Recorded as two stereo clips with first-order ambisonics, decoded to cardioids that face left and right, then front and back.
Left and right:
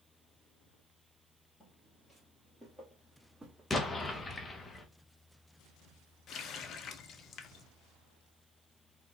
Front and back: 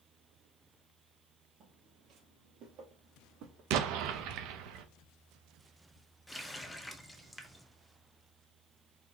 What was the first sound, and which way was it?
Footsteps, 165° left.